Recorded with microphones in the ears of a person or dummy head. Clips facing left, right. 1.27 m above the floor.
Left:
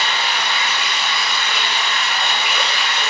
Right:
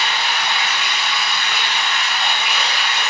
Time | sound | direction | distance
0.0 | running water | 70° left (ahead or behind) | 4 m